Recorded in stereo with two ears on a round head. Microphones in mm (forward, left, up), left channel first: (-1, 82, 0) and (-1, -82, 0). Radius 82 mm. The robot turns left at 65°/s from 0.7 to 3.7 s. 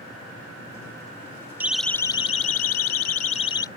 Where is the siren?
10° right (ahead or behind); by 3.7 s 20° left (ahead or behind).